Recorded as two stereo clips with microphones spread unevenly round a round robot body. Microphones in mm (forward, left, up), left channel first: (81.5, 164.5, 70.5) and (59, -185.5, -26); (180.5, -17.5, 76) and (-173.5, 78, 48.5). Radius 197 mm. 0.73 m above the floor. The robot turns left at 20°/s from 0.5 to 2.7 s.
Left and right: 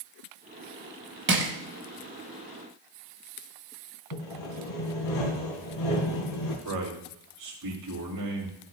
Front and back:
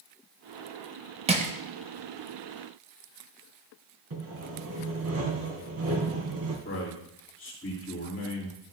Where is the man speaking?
85° right, 3 m.